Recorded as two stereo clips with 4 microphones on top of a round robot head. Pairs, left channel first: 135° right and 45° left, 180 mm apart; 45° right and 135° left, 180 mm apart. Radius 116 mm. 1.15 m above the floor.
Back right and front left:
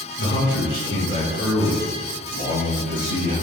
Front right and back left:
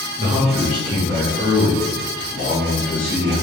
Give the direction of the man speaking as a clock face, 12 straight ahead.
6 o'clock.